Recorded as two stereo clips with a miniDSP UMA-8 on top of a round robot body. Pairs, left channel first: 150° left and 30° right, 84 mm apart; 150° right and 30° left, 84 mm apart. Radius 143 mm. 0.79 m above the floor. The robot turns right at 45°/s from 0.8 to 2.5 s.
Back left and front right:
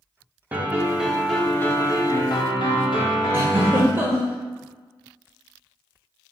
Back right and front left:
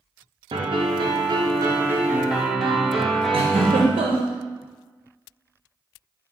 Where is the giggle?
40° left, 0.5 m.